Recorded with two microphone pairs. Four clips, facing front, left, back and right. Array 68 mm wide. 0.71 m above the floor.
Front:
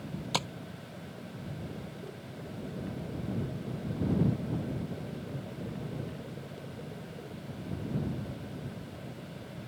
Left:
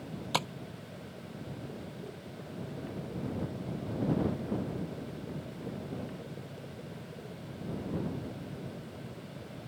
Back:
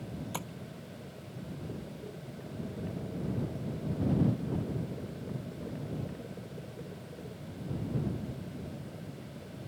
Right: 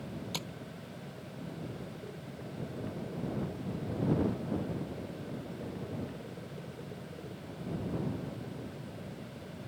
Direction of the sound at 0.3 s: 75° left.